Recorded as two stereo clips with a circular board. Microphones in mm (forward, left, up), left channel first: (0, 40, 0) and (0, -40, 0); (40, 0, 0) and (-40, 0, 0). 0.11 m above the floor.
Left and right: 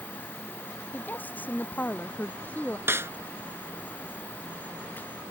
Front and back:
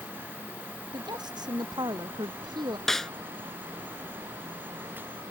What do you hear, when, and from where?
0.9 s a woman speaking: 155° left
2.9 s a snare drum: 80° right